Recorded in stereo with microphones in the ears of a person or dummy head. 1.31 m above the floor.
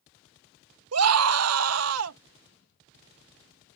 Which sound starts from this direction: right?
A scream, at 0.9 s.